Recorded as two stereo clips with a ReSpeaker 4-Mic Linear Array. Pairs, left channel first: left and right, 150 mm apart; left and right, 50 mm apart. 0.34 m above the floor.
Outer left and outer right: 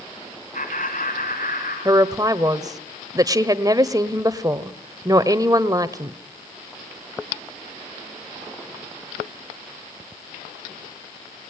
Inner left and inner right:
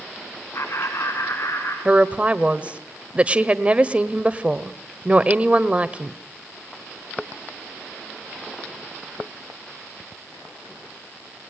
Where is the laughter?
65° left (ahead or behind), 2.5 m; by 1.8 s 70° left (ahead or behind), 4.5 m.